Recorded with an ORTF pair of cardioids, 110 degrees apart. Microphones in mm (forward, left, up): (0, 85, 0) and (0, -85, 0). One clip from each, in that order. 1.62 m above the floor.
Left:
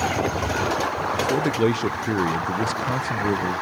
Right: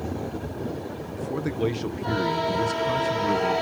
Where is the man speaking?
30° left, 0.8 m.